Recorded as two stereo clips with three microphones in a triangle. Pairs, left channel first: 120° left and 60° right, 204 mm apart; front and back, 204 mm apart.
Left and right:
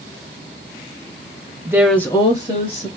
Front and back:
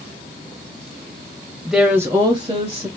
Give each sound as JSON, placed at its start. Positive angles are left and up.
{"t": 1.6, "sound": "a woman speaking", "azimuth_deg": -90, "distance_m": 1.0}